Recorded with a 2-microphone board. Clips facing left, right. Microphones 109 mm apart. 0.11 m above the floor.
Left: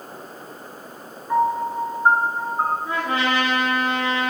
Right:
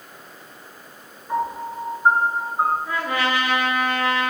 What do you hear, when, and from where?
1.3 s a piano: 5° right (ahead or behind), 1.1 m
2.9 s a trumpet: 25° left (ahead or behind), 1.1 m